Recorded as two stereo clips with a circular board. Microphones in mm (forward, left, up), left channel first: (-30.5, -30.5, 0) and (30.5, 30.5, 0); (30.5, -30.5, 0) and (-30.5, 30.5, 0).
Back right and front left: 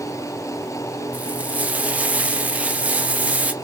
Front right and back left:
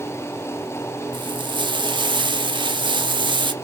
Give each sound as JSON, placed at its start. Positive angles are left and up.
{"t": 1.1, "sound": "frying", "azimuth_deg": 120, "distance_m": 0.5}